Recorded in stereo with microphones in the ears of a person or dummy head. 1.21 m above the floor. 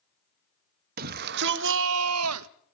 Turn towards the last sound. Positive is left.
turn(degrees=-75)  # may be behind; listen again after turning